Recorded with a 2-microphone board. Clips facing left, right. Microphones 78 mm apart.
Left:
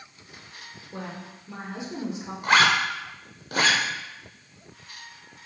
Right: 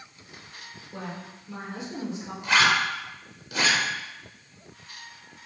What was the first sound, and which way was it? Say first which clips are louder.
A woman speaking: even; 20° left (ahead or behind).